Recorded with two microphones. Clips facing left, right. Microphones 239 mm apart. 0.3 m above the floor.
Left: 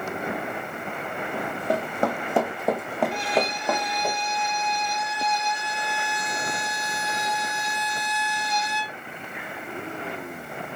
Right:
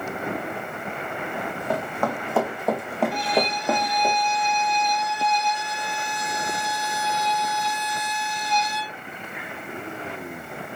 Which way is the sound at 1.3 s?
40° left (ahead or behind).